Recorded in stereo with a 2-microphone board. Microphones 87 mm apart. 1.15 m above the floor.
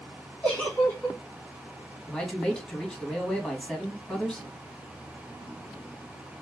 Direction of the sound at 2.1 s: 10° left (ahead or behind).